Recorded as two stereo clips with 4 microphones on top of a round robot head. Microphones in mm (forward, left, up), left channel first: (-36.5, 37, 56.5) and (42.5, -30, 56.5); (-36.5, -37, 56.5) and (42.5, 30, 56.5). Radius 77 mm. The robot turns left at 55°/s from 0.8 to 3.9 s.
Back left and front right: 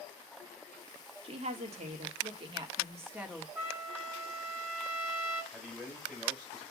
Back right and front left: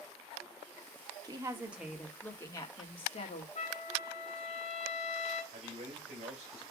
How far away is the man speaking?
About 3.5 m.